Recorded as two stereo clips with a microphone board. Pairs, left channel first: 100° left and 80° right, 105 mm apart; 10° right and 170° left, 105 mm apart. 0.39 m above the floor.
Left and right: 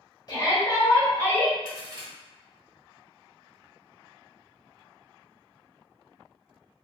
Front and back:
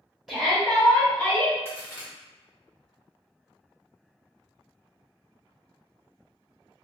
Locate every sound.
0.3 s a shout: 85° left, 1.6 m; by 1.6 s 40° left, 1.5 m
1.6 s a crack: 70° right, 1.0 m